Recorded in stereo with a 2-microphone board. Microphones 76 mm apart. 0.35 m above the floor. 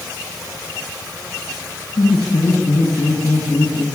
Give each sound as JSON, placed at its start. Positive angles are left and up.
{"t": 2.0, "sound": "laughter", "side_deg": 70, "distance_m": 4.0}